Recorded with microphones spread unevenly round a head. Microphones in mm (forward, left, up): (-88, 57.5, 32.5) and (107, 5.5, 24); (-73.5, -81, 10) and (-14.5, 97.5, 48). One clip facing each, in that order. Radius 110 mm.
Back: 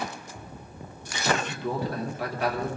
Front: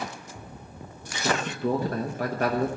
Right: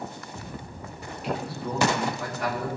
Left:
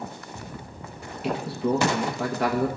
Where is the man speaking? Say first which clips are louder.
Front 2 dB, left 6 dB; 30° left, 1.1 m.